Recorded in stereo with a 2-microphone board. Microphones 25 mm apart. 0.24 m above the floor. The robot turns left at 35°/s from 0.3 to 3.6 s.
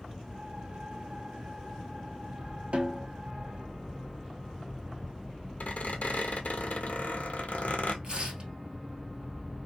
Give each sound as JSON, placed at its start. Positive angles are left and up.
{"t": 2.7, "sound": "a snare drum", "side_deg": -55, "distance_m": 0.7}
{"t": 5.6, "sound": "a squeak", "side_deg": 80, "distance_m": 0.6}
{"t": 8.0, "sound": "tearing paper", "side_deg": -35, "distance_m": 1.3}